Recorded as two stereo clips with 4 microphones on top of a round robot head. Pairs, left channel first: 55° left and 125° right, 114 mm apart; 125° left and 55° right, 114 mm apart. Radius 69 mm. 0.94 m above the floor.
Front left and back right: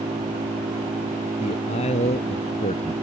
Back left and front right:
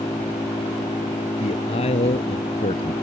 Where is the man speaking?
90° left.